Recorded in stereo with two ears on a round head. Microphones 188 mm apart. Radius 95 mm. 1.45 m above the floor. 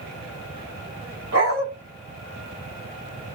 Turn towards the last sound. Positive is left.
turn(degrees=-70)  # may be behind; listen again after turning